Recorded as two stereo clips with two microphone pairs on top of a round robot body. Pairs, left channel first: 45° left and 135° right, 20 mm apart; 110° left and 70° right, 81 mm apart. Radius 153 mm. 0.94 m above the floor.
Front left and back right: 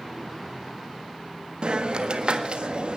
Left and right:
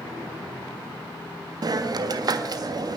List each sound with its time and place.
1.6 s a hiss: 100° right, 1.6 m